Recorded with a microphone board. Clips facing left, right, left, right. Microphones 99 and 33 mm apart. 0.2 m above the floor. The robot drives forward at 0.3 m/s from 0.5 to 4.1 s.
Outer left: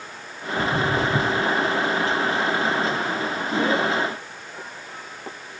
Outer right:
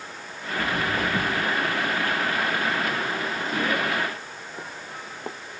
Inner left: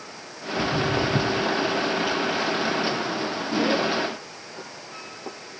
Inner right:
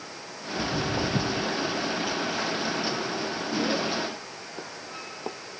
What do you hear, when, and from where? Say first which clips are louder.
0.6 s footsteps: outer left 4 dB, inner left 5 dB; 75° left (ahead or behind), 1.9 m; by 5.4 s 20° right (ahead or behind), 2.5 m